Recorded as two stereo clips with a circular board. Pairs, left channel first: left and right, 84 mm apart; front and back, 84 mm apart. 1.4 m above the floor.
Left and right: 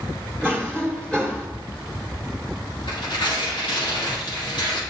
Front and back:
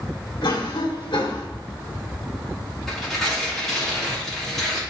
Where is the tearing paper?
85° left, 2 m.